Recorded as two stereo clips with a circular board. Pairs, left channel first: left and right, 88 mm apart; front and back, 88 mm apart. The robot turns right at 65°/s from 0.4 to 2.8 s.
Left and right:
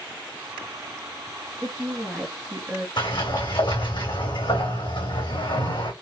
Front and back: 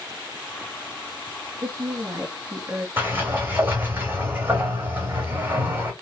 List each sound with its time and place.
1.6 s a woman speaking: 160° left, 1.3 m; by 2.9 s 125° right, 1.3 m
3.0 s a sliding door: 115° left, 2.5 m